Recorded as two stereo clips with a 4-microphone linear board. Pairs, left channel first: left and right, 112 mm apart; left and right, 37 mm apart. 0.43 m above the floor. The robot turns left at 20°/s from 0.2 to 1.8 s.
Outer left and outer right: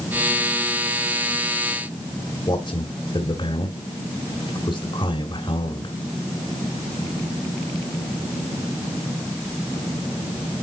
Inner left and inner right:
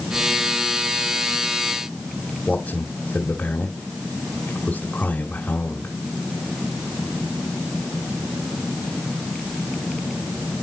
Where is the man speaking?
45° left (ahead or behind), 1.8 m.